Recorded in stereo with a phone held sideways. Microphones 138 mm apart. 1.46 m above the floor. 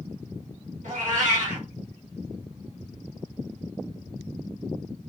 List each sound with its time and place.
0.8 s a cat meowing: 65° right (ahead or behind), 1.4 m